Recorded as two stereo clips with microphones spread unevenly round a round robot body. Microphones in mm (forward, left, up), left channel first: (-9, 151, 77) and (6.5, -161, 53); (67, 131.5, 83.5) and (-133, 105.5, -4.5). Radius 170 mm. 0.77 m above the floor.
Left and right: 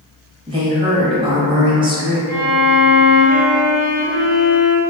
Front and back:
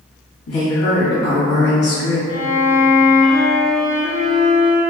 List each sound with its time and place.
0.5 s a woman speaking: 20° right, 0.9 m
2.3 s a violin: 85° right, 0.7 m